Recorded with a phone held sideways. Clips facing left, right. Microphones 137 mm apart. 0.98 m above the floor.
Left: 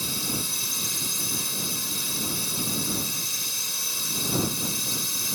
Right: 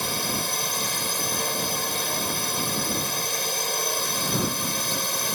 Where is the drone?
65° right (ahead or behind).